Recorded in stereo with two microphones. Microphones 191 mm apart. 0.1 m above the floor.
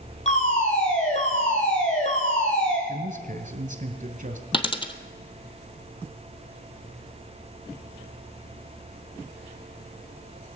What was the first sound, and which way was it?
A fire alarm, 35° left (ahead or behind).